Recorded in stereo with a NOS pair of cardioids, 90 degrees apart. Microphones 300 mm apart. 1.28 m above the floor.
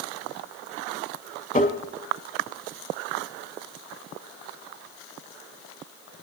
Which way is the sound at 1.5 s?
30° left.